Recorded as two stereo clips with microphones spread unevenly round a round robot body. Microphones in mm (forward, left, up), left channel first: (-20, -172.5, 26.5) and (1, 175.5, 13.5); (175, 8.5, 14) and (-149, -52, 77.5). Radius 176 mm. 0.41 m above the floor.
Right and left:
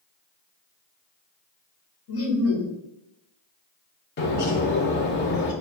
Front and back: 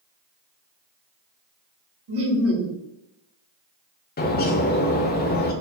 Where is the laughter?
125° right, 1.1 m.